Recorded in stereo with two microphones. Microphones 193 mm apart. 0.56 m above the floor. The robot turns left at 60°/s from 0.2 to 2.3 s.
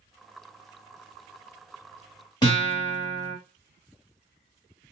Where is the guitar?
25° left (ahead or behind), 1.0 m.